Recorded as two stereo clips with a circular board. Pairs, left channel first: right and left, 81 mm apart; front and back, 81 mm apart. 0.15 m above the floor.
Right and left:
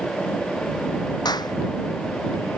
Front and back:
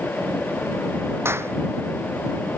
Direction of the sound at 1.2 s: 120° right.